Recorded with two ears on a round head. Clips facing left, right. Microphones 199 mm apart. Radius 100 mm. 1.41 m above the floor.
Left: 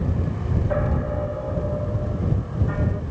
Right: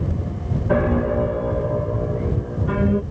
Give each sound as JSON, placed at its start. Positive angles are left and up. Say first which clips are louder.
{"t": 0.7, "sound": "a piano", "louder": "right 8 dB", "side_deg": -85}